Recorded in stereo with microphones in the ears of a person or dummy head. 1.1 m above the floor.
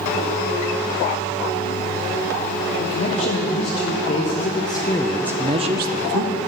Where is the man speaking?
50° left (ahead or behind), 2 m; by 6.3 s 60° right (ahead or behind), 0.9 m.